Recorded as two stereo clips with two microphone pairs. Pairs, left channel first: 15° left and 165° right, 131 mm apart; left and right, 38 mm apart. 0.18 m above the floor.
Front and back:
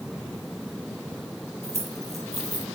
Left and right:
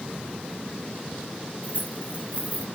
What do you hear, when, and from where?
1.6 s keys jangling: 135° right, 3.5 m